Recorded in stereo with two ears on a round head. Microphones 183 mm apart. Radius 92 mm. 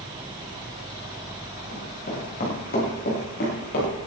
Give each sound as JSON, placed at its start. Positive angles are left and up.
{"t": 1.7, "sound": "running footsteps", "side_deg": 45, "distance_m": 9.5}